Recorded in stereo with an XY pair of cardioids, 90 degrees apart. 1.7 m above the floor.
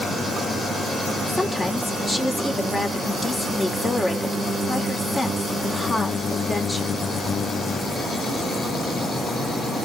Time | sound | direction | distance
1.3 | a woman speaking | 20° left | 4.5 m